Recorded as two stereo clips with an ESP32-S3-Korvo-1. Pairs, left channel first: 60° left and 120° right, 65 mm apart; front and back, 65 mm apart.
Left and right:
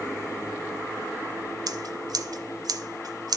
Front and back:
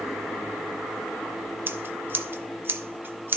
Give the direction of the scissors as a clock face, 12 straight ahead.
4 o'clock.